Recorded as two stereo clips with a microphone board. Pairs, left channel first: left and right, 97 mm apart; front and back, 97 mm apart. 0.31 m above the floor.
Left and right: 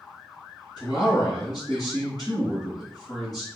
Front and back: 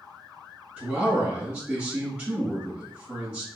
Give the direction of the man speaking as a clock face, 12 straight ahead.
8 o'clock.